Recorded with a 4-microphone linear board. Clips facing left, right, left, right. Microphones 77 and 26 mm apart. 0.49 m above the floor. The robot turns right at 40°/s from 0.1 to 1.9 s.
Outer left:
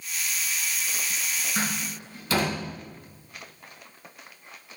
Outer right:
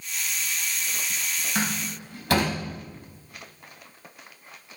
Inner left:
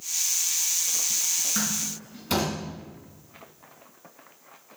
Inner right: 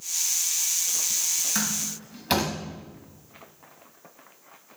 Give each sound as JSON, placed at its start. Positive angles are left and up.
{"t": 1.6, "sound": "a door slam", "side_deg": -70, "distance_m": 3.0}